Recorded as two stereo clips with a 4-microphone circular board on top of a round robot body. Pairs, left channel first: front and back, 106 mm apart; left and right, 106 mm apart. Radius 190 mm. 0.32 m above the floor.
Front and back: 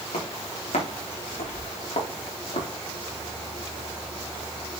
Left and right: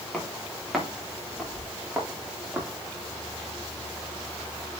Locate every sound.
0.1 s footsteps: 5° left, 7.5 m; by 2.7 s 10° right, 7.5 m